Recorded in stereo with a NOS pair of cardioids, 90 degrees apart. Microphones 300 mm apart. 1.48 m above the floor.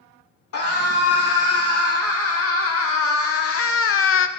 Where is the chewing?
No chewing in this recording.